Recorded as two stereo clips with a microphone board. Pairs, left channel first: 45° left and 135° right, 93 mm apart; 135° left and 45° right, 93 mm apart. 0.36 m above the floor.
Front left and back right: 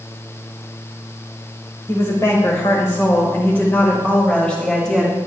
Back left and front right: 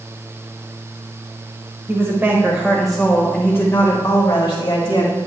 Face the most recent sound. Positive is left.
turn(degrees=130)